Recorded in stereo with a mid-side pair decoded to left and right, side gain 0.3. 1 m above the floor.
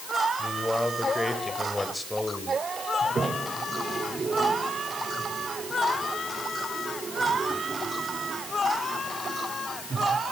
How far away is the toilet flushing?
About 2.5 m.